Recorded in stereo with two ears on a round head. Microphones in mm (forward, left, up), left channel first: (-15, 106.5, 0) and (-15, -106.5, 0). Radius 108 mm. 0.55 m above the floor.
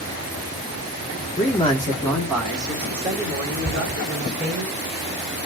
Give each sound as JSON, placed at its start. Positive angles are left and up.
{"t": 1.4, "sound": "a man speaking", "side_deg": 30, "distance_m": 1.1}
{"t": 3.6, "sound": "a cupboard door", "side_deg": -5, "distance_m": 3.0}